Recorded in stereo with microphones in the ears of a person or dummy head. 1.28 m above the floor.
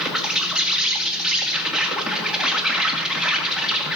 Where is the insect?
5° right (ahead or behind), 1.7 m.